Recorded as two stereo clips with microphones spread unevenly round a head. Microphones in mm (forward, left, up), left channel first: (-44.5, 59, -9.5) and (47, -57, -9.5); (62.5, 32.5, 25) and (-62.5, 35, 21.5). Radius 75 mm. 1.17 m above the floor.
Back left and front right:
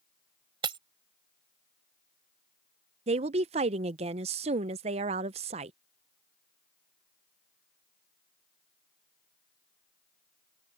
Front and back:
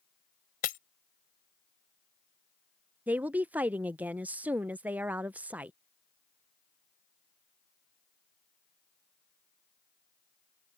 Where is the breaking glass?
5° left.